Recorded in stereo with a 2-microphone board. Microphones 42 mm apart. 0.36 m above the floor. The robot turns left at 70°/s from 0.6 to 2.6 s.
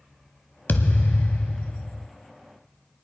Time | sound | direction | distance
0.7 | a thud | 120° left | 0.9 m